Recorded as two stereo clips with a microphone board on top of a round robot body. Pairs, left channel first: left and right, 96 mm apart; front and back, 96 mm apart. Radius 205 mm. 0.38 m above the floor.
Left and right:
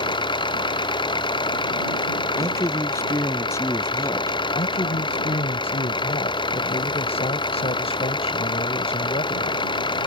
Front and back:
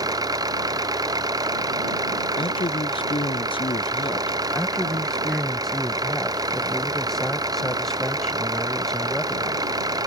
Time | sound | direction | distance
0.0 | an engine running | 130° left | ?
2.4 | a man speaking | 30° left | ?
4.5 | a man speaking | 85° left | ?